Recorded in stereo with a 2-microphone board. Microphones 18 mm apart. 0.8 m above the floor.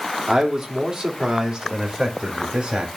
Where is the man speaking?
15° right (ahead or behind), 2 m; by 2.9 s 40° right (ahead or behind), 3 m.